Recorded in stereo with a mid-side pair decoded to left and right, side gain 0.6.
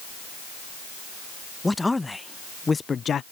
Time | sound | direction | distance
1.6 | a man speaking | 10° left | ?